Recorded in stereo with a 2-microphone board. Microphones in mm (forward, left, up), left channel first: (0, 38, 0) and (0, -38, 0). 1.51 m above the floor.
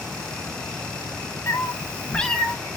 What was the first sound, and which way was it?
A cat meowing, 40° left (ahead or behind).